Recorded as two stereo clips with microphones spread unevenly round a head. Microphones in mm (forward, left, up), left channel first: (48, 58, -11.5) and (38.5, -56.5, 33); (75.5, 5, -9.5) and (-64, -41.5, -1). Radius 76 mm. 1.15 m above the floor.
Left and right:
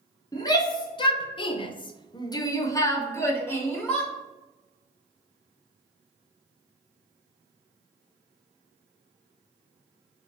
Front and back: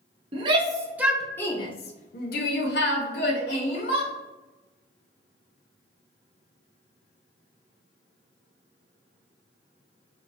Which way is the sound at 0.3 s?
140° left.